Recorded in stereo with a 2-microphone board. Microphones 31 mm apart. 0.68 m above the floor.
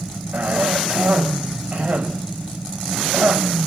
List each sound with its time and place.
0.3 s a cough: 65° right (ahead or behind), 3.5 m